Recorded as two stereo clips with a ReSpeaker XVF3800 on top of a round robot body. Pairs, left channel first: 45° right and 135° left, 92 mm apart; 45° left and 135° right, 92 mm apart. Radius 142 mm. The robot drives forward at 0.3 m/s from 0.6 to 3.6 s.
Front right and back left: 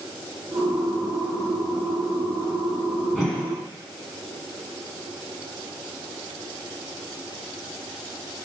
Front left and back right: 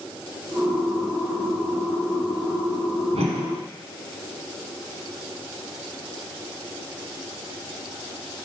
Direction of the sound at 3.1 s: 145° right.